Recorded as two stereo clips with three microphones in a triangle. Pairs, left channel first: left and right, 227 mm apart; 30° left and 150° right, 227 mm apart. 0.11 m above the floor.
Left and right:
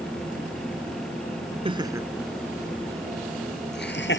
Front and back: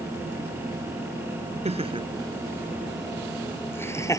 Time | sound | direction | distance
1.6 | laughter | 125° right | ?